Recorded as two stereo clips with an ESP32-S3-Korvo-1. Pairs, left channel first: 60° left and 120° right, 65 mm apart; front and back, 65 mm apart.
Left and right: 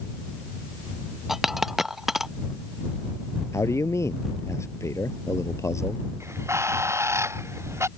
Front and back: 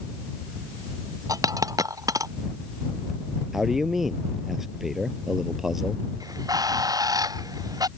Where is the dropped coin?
155° left.